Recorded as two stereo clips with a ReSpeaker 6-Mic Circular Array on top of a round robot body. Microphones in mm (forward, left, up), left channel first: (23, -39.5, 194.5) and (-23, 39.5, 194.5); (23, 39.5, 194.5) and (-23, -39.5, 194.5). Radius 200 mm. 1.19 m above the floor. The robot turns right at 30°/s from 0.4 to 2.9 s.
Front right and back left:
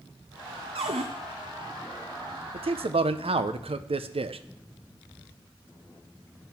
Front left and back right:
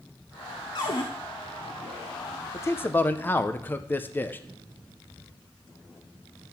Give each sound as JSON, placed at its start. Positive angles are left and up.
{"t": 0.8, "sound": "a cupboard door", "azimuth_deg": 100, "distance_m": 0.6}
{"t": 2.5, "sound": "a man speaking", "azimuth_deg": 120, "distance_m": 0.7}